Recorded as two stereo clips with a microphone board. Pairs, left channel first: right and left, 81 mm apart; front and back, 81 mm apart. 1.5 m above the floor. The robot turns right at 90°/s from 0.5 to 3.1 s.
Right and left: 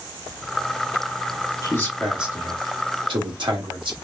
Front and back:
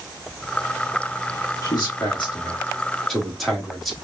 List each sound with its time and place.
1.6 s a man speaking: 45° right, 2.5 m; by 4.0 s 90° left, 2.5 m